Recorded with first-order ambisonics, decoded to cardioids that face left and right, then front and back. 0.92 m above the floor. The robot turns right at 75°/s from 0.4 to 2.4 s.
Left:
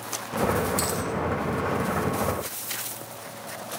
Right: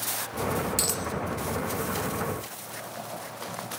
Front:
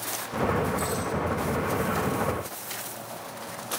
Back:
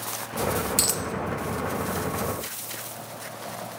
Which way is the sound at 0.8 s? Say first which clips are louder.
Left 1 dB, back 3 dB; 170° right.